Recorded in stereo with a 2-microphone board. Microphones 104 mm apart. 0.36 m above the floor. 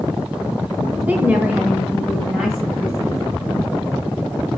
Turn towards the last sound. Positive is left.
turn(degrees=-5)  # may be behind; listen again after turning